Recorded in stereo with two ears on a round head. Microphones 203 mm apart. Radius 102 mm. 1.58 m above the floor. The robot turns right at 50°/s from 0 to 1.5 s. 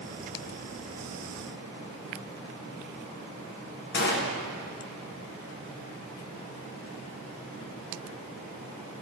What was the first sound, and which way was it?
A gunshot, 50° left (ahead or behind).